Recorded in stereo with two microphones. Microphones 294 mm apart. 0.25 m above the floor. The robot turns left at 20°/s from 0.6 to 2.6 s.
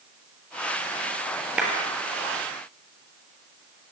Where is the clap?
5° right (ahead or behind), 4 m.